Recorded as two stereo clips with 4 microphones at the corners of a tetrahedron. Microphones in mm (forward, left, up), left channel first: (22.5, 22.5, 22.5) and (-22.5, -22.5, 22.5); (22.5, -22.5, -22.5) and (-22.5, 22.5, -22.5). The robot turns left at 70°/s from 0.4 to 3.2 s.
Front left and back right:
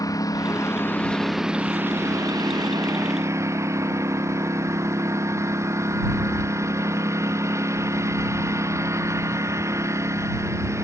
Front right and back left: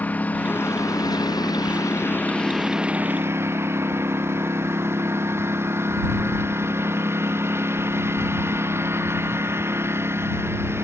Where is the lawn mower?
20° left; by 10.9 s 175° right.